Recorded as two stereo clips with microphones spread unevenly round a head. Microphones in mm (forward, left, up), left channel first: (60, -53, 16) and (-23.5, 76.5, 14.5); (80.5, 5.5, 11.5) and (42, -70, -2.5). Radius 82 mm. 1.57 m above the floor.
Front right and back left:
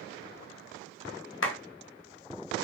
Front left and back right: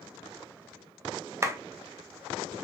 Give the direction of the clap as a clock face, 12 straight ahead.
2 o'clock.